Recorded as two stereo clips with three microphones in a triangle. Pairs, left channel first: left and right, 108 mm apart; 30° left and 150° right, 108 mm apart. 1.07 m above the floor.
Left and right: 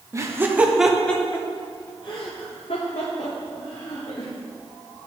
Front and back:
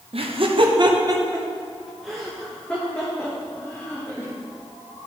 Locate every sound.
0.1 s laughter: 150° right, 0.8 m; by 4.3 s 95° left, 1.7 m